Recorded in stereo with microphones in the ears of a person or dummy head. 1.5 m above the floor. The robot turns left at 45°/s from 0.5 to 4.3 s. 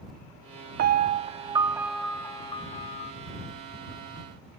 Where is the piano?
130° right; by 3.1 s 125° left.